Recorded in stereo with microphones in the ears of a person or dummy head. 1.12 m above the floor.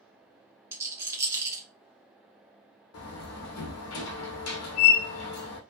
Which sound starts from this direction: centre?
A rattle, at 0.7 s.